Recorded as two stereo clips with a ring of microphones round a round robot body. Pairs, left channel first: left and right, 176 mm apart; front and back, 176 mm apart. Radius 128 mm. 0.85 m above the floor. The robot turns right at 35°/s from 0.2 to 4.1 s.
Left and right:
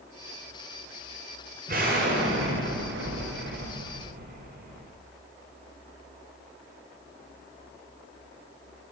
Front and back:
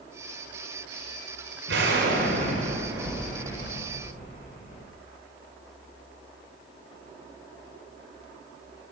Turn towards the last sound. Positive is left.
turn(degrees=-60)